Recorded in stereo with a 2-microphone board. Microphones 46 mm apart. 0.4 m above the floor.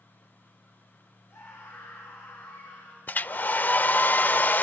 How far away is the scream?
About 6 m.